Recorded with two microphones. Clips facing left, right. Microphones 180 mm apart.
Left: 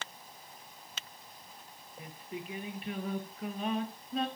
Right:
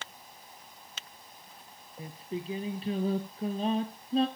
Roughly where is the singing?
Right.